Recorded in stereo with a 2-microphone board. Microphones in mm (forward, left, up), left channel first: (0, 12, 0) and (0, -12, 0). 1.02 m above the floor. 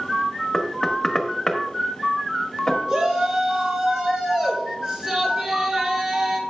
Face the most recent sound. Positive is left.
turn(degrees=-45)  # may be behind; listen again after turning